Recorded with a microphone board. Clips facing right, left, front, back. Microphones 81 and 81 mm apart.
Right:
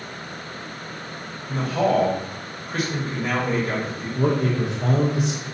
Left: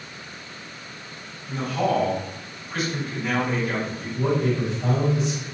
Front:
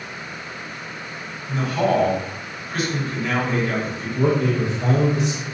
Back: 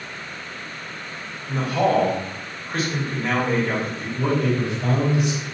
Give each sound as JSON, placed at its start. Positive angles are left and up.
{"t": 1.5, "sound": "a man speaking", "azimuth_deg": -130, "distance_m": 1.5}
{"t": 4.2, "sound": "a man speaking", "azimuth_deg": -60, "distance_m": 0.8}